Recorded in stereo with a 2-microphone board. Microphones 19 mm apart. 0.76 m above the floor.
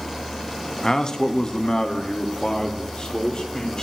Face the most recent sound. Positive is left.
turn(degrees=45)  # may be behind; listen again after turning